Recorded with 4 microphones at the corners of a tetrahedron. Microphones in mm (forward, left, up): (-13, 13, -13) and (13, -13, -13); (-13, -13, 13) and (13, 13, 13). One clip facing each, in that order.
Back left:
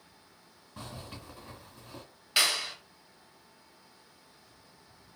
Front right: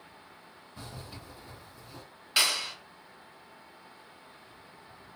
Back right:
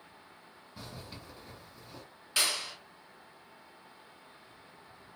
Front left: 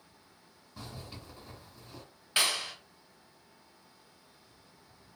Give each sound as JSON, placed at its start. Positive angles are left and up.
{"t": 0.8, "sound": "a zipper", "azimuth_deg": 140, "distance_m": 2.0}
{"t": 2.4, "sound": "a clap", "azimuth_deg": 55, "distance_m": 1.1}